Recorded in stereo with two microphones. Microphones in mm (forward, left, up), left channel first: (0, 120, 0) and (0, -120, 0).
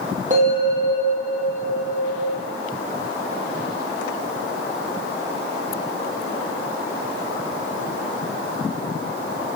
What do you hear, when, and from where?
0.3 s a bell: 30° right (ahead or behind), 4.5 m